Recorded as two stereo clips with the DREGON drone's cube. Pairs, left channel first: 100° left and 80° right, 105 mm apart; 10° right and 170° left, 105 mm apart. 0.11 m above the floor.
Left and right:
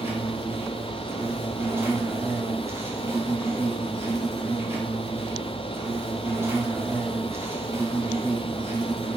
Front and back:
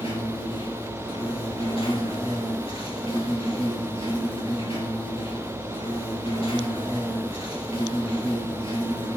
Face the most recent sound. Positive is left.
turn(degrees=-15)